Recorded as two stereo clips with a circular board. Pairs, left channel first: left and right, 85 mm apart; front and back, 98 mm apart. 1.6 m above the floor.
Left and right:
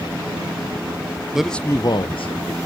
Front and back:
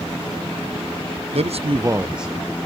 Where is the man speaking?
170° right, 0.7 m; by 2.6 s 85° left, 1.1 m.